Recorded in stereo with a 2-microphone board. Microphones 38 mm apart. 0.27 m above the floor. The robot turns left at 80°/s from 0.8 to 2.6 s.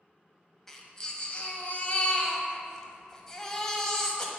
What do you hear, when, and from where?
0.7 s a baby crying: 170° left, 0.9 m; by 4.3 s 25° left, 0.9 m